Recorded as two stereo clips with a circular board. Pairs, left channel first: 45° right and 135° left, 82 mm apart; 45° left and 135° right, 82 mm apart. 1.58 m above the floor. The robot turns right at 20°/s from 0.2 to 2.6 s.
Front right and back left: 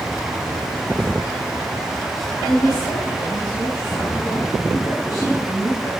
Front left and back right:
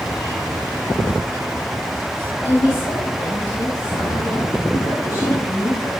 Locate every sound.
2.5 s a woman speaking: straight ahead, 4.5 m